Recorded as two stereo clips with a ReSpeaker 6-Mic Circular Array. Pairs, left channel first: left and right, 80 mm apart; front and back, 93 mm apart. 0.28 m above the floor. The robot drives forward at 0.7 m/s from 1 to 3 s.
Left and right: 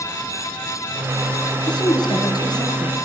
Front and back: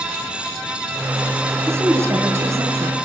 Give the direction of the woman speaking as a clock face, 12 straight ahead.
8 o'clock.